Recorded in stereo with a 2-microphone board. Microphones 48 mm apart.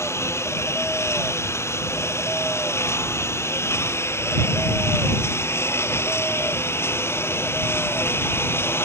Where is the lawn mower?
70° left (ahead or behind); by 8.8 s 55° left (ahead or behind).